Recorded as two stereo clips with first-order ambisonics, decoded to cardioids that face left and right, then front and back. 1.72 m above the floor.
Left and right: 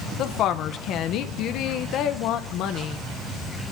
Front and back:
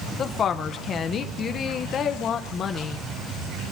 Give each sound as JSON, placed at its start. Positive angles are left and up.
{"t": 0.2, "sound": "a woman speaking", "azimuth_deg": 55, "distance_m": 1.0}